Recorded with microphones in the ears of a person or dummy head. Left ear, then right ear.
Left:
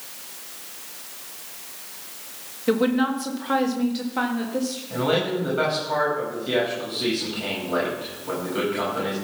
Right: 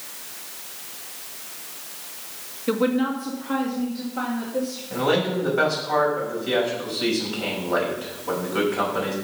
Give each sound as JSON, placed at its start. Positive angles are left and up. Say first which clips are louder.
{"t": 2.7, "sound": "a woman speaking", "louder": "left 1 dB", "side_deg": 5, "distance_m": 1.4}
{"t": 4.9, "sound": "a man speaking", "louder": "right 1 dB", "side_deg": -15, "distance_m": 6.0}